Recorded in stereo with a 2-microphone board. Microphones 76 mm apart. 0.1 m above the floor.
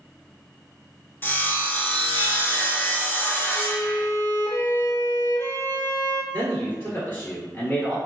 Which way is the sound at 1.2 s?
25° left (ahead or behind).